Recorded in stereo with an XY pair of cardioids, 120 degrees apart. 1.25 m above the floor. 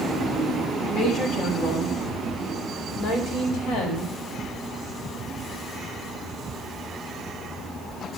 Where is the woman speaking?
50° left, 3 m; by 4.1 s 70° left, 5 m.